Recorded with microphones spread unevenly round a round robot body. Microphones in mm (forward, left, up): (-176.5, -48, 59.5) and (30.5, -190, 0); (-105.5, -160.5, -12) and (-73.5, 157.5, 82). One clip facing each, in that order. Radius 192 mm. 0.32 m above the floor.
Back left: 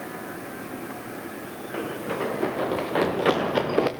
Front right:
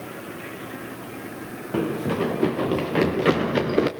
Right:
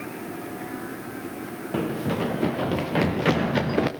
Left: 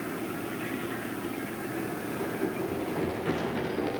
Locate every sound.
1.7 s running footsteps: 70° right, 2 m; by 3.9 s 100° right, 3 m